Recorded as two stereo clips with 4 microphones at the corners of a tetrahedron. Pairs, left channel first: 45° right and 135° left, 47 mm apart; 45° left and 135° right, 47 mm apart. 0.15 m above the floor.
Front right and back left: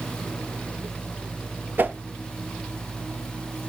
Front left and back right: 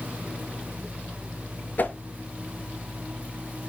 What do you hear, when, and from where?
1.8 s a whoosh: 90° left, 0.5 m